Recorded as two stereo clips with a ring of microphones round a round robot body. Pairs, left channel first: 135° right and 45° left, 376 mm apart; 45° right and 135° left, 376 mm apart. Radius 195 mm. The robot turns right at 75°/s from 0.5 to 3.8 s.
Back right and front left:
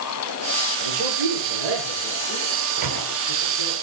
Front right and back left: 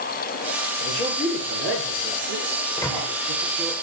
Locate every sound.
0.8 s a man speaking: 5° left, 8.5 m; by 3.8 s 135° right, 8.5 m
2.8 s a microwave: 30° left, 2 m; by 3.1 s 55° left, 2 m